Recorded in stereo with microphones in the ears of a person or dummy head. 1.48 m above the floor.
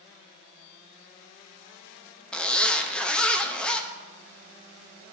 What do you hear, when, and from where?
2.3 s a zipper: 5° left (ahead or behind), 0.5 m